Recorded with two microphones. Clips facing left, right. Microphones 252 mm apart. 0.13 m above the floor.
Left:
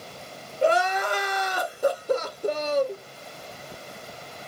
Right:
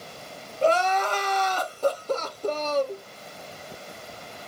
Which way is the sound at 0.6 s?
10° left (ahead or behind).